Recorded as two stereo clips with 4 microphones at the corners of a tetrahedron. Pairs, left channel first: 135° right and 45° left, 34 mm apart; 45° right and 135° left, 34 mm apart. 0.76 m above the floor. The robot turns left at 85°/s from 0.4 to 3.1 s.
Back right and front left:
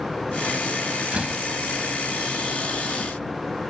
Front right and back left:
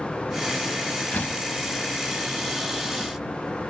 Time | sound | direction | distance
1.1 | a door slam | 5° right | ?